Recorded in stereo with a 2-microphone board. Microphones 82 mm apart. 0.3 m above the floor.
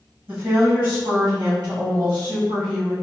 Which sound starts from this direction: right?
A woman speaking, at 0.3 s.